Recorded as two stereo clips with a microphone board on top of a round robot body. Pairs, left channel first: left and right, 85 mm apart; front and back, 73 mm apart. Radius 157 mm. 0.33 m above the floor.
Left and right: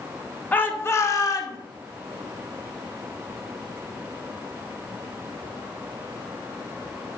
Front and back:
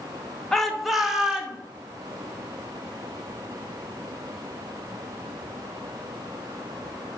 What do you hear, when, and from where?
0.5 s a shout: 75° left, 1.4 m; by 1.6 s 105° left, 1.9 m